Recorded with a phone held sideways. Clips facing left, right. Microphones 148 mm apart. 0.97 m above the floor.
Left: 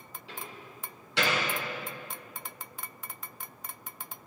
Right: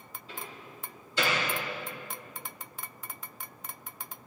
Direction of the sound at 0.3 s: 80° left.